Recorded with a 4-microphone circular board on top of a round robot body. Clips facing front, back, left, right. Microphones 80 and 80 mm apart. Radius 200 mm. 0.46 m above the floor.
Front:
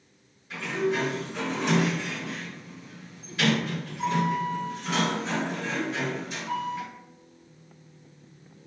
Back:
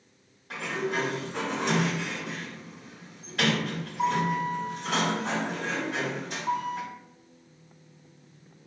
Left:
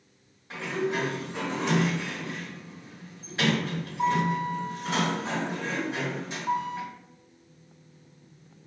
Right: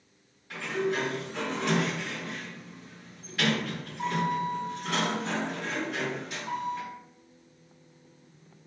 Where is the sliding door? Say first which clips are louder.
Front 3 dB, even; 155° left, 1.7 m.